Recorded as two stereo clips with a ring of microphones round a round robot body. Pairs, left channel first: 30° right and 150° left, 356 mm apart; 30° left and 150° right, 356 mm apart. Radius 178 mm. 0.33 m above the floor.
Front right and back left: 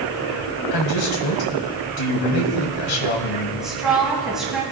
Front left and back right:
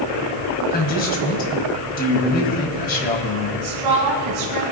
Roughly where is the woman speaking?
Behind right.